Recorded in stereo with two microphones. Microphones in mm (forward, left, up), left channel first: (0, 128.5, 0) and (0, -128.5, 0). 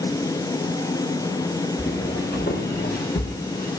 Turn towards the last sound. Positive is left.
turn(degrees=35)  # may be behind; listen again after turning